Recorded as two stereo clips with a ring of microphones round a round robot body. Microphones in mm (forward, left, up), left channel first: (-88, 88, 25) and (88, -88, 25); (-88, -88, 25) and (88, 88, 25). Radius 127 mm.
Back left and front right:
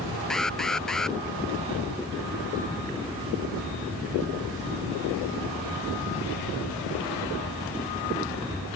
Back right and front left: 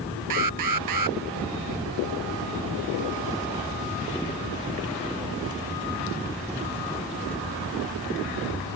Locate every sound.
0.3 s an alarm: 45° left